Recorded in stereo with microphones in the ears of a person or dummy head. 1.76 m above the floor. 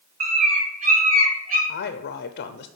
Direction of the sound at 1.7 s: 55° left (ahead or behind).